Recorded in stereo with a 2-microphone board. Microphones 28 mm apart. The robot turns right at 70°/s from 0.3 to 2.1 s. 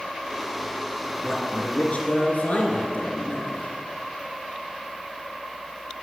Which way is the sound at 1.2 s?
20° left.